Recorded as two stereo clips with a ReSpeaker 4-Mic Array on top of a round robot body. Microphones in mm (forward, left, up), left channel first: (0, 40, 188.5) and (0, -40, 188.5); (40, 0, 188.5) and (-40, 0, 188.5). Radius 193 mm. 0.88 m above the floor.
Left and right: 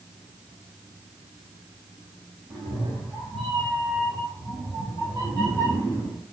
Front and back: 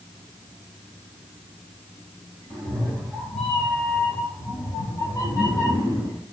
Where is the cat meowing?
90° right, 3 m; by 6.2 s 40° right, 3 m.